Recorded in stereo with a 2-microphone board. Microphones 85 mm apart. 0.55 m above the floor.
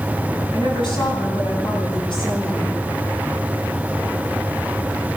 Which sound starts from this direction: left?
A woman speaking, at 0.5 s.